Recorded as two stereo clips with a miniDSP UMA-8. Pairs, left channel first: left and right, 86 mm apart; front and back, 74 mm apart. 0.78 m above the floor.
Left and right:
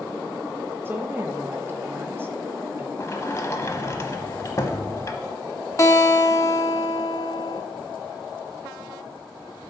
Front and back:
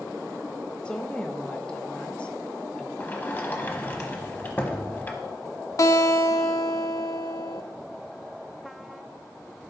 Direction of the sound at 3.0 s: 50° left.